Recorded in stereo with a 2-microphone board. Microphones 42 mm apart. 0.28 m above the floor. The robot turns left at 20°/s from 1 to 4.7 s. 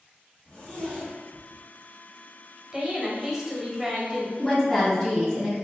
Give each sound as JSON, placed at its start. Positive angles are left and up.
{"t": 0.5, "sound": "a zipper", "side_deg": 30, "distance_m": 1.7}
{"t": 2.7, "sound": "a woman speaking", "side_deg": -15, "distance_m": 0.9}
{"t": 4.4, "sound": "a woman speaking", "side_deg": 15, "distance_m": 1.4}